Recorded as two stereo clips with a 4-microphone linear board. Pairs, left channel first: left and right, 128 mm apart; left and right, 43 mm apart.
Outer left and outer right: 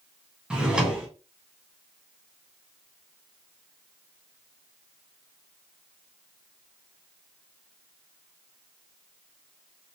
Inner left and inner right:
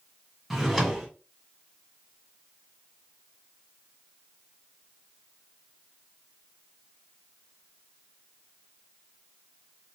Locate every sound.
0.5 s a drawer: 5° right (ahead or behind), 1.0 m